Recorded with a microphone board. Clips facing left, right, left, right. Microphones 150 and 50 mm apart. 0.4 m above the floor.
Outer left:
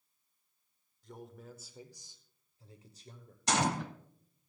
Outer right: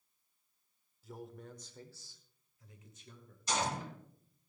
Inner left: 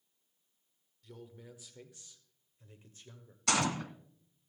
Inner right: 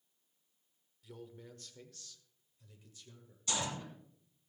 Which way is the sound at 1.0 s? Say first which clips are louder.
Outer right 1 dB, even; 5° right (ahead or behind).